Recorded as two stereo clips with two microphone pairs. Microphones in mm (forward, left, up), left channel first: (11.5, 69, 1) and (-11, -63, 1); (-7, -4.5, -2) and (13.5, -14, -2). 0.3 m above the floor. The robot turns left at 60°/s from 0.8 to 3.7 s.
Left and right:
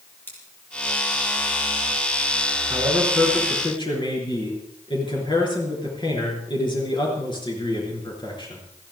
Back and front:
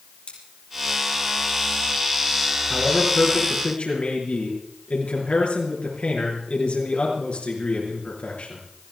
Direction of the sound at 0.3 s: 155° left.